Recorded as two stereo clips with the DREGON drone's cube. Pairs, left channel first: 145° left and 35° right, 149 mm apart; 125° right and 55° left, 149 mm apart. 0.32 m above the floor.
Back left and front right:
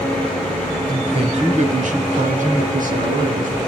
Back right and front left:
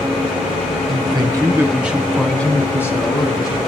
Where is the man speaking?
15° left, 1.9 m; by 3.6 s 60° right, 3.5 m.